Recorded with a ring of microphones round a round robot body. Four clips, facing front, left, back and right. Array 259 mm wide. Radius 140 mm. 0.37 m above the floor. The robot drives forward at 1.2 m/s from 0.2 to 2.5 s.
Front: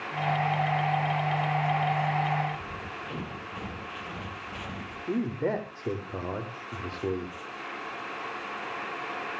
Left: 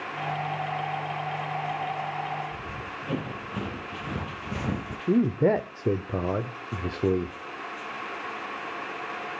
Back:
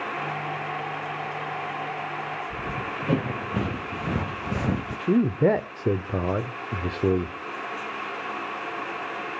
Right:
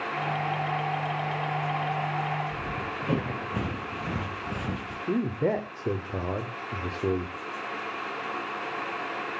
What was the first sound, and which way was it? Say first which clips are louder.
Running footsteps: right 4 dB, back 6 dB; 155° right.